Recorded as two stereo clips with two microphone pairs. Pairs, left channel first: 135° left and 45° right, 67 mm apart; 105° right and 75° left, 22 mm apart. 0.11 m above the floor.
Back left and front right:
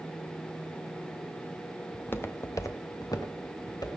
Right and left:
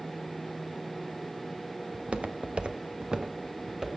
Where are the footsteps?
70° left, 1.4 m; by 3.9 s 130° left, 2.5 m.